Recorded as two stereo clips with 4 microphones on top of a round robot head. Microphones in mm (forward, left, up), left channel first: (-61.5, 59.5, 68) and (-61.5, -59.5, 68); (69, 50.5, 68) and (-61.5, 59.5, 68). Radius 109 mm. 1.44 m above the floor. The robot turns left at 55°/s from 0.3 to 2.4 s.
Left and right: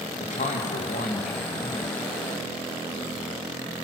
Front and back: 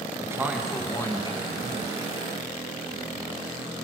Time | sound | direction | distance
0.2 | a man speaking | 105° left | 2.5 m